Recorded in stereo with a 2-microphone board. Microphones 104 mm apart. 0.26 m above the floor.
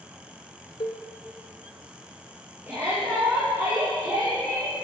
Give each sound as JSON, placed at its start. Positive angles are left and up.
{"t": 0.8, "sound": "a cowbell", "side_deg": 55, "distance_m": 1.0}
{"t": 2.7, "sound": "a shout", "side_deg": -20, "distance_m": 4.5}